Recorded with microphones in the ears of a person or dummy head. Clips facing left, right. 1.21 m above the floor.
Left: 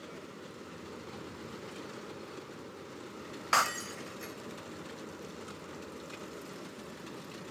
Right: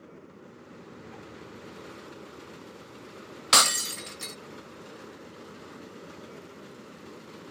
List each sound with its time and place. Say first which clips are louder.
3.5 s breaking glass: right 5 dB; 45° right (ahead or behind)